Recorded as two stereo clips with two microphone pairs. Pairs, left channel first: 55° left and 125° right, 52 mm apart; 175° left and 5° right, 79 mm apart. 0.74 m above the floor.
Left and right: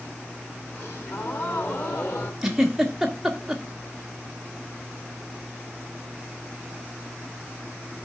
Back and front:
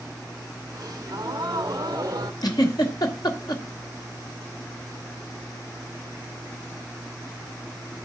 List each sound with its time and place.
0.7 s a gasp: 25° left, 1.8 m
2.4 s a giggle: 155° left, 1.7 m